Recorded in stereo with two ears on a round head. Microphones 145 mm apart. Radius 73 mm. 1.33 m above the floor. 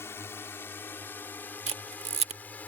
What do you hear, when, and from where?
0.0 s a drone: 15° left (ahead or behind); by 2.7 s 10° left (ahead or behind)
1.7 s a camera shutter: 40° right (ahead or behind)